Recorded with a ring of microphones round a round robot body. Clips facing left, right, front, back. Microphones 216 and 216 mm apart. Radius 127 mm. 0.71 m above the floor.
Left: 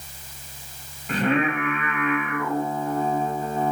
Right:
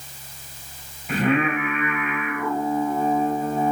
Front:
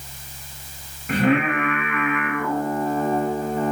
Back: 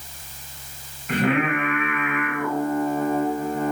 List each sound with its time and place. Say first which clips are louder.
1.1 s singing: right 1 dB, front 2 dB; 5° right, 2.5 m